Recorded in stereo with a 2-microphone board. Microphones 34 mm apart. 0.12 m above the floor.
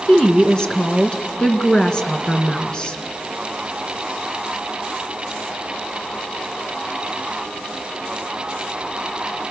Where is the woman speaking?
20° left (ahead or behind), 1.6 m.